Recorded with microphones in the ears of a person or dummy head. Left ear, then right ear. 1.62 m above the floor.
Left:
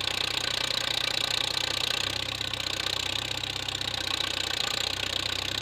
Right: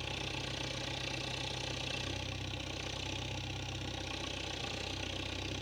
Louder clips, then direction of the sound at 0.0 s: Left 11 dB; 55° left (ahead or behind).